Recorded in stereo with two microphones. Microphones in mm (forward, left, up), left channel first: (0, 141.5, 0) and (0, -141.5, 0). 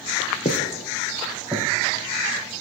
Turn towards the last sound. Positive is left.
turn(degrees=-15)  # may be behind; listen again after turning